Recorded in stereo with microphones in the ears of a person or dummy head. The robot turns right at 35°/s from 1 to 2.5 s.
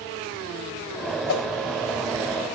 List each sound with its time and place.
1.3 s a whoosh: 65° left (ahead or behind), 3.5 m; by 1.4 s 60° left (ahead or behind), 3.5 m